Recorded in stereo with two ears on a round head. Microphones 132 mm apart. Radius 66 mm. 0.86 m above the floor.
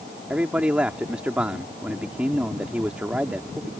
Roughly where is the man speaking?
Centre.